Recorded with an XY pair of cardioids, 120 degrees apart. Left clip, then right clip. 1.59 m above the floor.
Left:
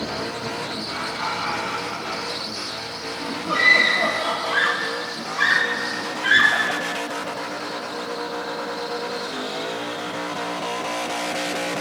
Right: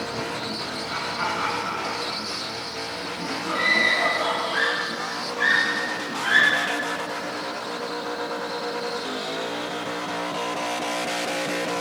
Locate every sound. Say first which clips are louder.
0.9 s laughter: right 1 dB; 50° right, 4 m; by 4.5 s 30° right, 7.5 m
3.5 s a scream: left 4 dB; 35° left, 3.5 m